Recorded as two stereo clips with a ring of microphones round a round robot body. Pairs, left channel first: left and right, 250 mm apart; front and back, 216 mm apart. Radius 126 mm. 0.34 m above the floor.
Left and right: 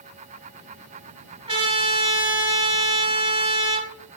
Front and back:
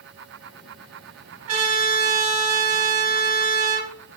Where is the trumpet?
160° right, 3 m.